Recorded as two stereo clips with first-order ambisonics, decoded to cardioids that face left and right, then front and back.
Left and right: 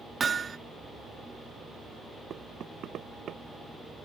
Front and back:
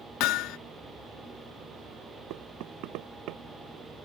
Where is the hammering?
20° right.